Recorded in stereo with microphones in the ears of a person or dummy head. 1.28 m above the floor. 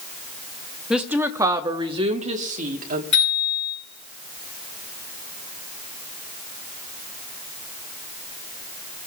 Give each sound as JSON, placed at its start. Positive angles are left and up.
{"t": 0.9, "sound": "a woman speaking", "side_deg": -10, "distance_m": 1.0}
{"t": 3.1, "sound": "a bicycle bell", "side_deg": 35, "distance_m": 10.0}